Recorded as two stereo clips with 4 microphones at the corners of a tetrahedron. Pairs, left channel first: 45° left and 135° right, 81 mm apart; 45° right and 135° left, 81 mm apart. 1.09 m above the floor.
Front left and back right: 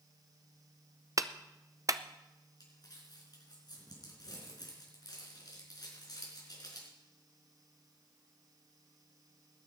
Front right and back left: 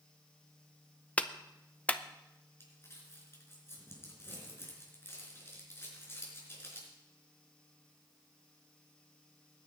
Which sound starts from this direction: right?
A clap, at 1.2 s.